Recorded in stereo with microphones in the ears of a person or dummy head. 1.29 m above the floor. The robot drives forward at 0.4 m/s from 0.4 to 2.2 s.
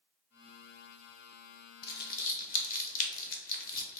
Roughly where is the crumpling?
Left.